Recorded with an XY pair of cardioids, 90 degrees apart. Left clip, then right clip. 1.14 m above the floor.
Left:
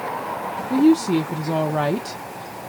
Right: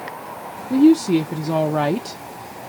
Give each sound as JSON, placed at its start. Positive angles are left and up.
{"t": 0.7, "sound": "a woman speaking", "azimuth_deg": -15, "distance_m": 0.8}